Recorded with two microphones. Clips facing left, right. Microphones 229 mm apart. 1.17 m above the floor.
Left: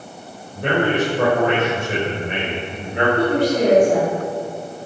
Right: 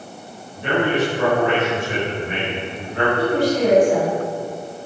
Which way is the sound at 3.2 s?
55° left (ahead or behind).